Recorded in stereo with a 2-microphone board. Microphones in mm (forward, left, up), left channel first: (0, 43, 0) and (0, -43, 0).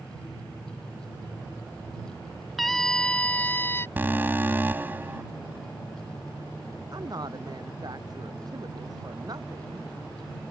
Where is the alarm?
25° right (ahead or behind).